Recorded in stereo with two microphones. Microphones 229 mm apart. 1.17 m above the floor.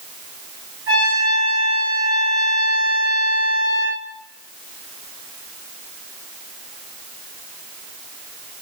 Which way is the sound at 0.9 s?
70° right (ahead or behind).